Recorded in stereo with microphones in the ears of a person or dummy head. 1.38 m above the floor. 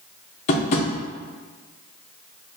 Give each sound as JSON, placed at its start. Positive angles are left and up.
{"t": 0.5, "sound": "tapping", "side_deg": 45, "distance_m": 0.6}